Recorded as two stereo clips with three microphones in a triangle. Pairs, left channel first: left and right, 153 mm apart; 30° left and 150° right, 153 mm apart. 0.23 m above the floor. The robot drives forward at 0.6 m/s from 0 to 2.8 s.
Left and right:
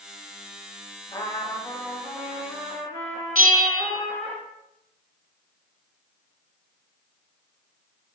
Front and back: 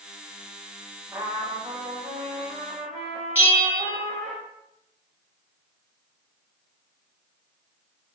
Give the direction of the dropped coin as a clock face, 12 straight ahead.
No dropped coin in this recording.